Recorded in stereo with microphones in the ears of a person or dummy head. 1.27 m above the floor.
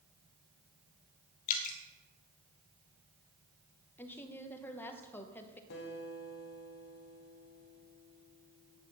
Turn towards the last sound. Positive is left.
turn(degrees=60)  # may be behind; listen again after turning